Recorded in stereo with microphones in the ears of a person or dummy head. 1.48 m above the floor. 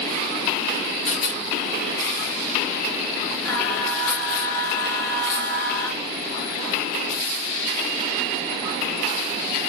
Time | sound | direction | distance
1.1 | a rattle | 80° left | 1.1 m
3.5 | singing | 20° left (ahead or behind) | 0.6 m